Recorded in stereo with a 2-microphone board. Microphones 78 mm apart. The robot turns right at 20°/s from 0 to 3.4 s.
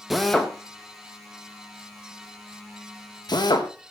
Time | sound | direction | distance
0.1 | a drill | centre (ahead or behind) | 1.5 m